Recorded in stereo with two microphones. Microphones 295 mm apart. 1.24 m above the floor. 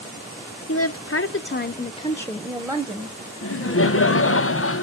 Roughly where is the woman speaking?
Left.